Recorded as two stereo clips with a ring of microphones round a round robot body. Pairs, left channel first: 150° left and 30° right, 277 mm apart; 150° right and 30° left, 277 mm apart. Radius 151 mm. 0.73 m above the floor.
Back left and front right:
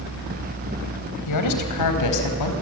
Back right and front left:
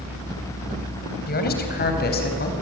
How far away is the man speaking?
About 4 m.